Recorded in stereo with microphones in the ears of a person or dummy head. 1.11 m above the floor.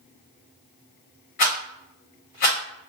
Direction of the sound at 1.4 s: 40° left (ahead or behind).